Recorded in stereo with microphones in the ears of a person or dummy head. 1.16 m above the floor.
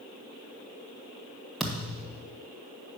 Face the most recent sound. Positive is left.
turn(degrees=0)  # may be behind; listen again after turning